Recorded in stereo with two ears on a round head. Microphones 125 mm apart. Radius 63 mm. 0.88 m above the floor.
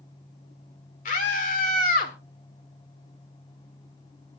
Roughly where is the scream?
Left.